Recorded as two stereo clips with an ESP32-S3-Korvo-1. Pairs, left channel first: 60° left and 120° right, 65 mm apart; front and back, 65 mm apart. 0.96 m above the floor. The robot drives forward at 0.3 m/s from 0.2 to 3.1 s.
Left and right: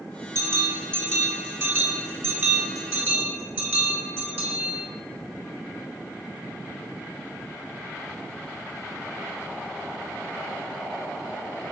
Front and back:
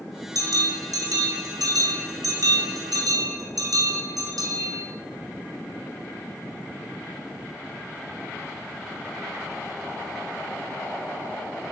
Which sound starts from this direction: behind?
A bell, at 0.3 s.